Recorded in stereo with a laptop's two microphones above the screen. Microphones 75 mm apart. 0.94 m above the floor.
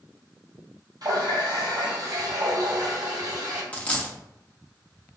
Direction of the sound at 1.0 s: 55° right (ahead or behind).